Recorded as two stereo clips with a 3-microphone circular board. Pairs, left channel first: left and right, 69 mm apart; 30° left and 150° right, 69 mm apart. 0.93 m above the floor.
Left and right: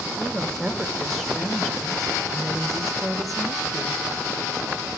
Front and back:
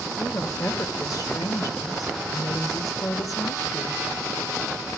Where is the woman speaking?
Straight ahead, 1.5 m.